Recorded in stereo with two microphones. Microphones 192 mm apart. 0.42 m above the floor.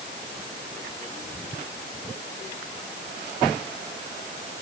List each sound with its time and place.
Only background noise.